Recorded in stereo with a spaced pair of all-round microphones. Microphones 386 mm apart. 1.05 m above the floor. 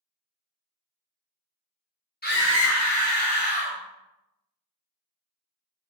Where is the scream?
25° left (ahead or behind), 1.4 m; by 3.8 s 70° left (ahead or behind), 1.3 m.